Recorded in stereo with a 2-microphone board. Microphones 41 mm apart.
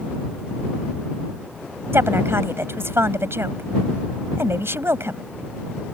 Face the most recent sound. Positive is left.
turn(degrees=-75)  # may be behind; listen again after turning